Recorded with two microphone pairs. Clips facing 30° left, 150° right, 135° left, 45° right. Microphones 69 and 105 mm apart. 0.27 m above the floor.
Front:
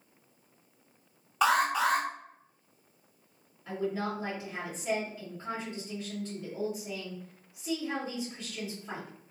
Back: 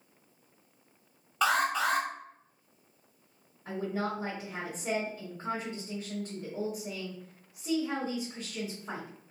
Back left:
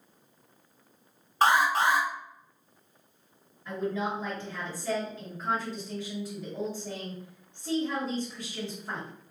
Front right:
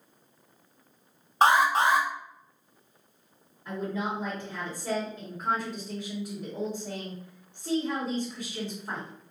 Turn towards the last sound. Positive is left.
turn(degrees=-120)